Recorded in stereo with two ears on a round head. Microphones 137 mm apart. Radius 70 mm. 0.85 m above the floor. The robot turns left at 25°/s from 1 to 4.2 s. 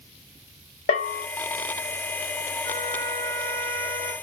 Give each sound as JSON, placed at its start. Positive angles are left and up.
{"t": 0.9, "sound": "a bell", "side_deg": 50, "distance_m": 1.5}
{"t": 2.6, "sound": "a trumpet", "side_deg": 25, "distance_m": 0.8}